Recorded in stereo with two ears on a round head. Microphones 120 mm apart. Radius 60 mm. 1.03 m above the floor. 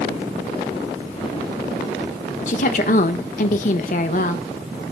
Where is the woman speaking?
60° left (ahead or behind), 1.1 m.